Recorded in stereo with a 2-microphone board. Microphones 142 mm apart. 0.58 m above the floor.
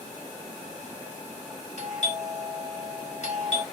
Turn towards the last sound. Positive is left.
turn(degrees=55)  # may be behind; listen again after turning